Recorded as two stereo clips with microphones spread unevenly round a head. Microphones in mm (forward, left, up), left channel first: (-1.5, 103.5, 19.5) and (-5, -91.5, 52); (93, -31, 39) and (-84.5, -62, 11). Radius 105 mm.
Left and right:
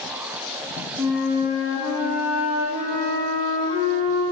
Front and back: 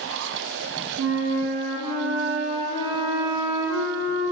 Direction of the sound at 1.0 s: 170° right.